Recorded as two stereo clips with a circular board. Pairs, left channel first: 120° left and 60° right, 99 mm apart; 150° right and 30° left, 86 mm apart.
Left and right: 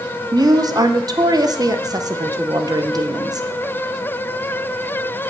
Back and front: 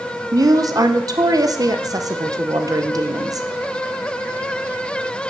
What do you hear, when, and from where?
0.3 s a woman speaking: 15° right, 0.8 m